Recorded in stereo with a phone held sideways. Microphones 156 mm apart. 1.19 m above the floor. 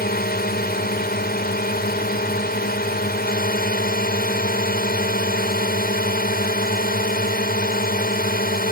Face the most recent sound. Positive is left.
turn(degrees=80)